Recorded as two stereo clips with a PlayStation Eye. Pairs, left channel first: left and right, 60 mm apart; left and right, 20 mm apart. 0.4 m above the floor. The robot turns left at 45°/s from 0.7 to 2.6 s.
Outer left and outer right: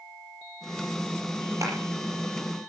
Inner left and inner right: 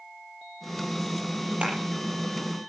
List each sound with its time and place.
1.6 s a clap: 65° right (ahead or behind), 7 m; by 1.8 s 55° right (ahead or behind), 7 m